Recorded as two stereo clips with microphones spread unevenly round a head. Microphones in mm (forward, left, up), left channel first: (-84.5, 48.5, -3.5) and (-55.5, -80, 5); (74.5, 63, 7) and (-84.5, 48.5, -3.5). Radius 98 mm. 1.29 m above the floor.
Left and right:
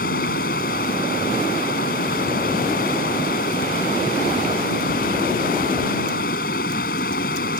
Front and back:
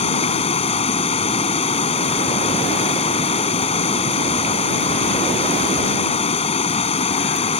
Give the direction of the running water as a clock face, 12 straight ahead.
10 o'clock.